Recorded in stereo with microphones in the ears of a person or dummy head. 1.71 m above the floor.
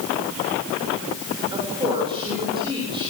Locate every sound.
1.5 s a woman speaking: 35° right (ahead or behind), 7 m